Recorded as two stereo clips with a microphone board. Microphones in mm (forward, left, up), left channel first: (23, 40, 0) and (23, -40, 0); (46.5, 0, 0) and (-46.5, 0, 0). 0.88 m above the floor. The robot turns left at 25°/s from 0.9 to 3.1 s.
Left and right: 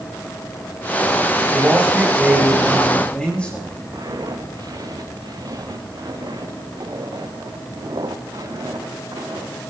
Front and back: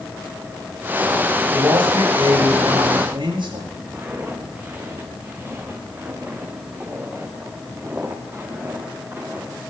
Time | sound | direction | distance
1.5 | a man speaking | 155° right | 6 m
3.9 | footsteps | 115° right | 4.5 m